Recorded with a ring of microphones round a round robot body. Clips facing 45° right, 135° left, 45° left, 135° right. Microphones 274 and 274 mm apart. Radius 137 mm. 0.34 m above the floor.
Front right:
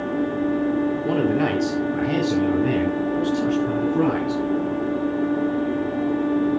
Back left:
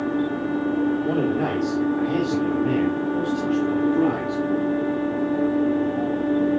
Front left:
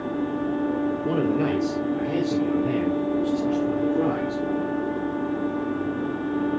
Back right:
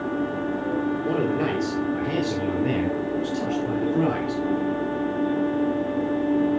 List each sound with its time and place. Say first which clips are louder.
1.1 s a man speaking: front right 2 dB, front left 4 dB; 30° right, 1.8 m; by 4.4 s 95° right, 5.5 m